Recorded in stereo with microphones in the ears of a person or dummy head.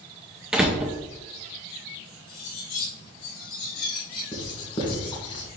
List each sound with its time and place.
0.5 s a door slam: 5° right (ahead or behind), 0.7 m
2.3 s cutlery clinking: 50° left (ahead or behind), 3.5 m
4.3 s writing: 30° left (ahead or behind), 2.5 m